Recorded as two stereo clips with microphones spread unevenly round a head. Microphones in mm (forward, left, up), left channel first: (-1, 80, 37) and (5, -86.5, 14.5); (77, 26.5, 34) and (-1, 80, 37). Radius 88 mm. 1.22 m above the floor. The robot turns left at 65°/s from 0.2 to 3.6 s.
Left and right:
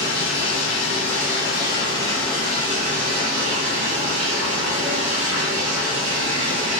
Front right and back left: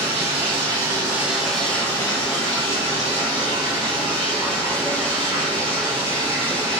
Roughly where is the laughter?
I don't hear laughter.